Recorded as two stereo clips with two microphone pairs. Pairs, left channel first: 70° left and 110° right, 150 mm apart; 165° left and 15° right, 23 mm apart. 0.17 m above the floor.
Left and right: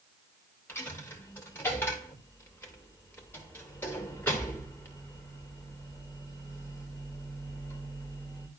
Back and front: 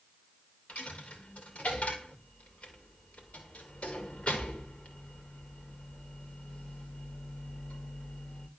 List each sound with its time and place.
0.7 s a dropped coin: 150° left, 2.5 m